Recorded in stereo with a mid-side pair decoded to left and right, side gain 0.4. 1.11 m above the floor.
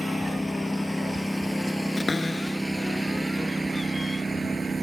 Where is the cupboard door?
25° left.